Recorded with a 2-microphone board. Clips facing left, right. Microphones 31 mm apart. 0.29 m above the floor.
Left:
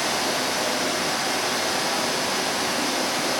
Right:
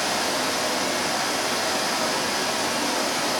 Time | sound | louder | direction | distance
0.0 | running water | even | 80° left | 1.5 m